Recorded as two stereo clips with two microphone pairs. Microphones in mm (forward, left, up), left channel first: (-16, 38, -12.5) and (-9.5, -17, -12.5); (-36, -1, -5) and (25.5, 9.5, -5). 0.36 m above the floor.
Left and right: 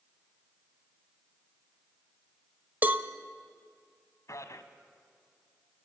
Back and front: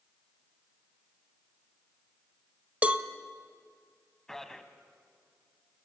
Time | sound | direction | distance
2.8 | a cowbell | 45° right | 1.1 m
4.3 | a man speaking | 110° left | 2 m